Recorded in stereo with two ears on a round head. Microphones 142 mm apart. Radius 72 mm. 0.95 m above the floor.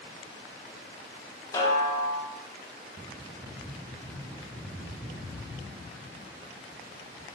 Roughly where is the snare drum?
Left.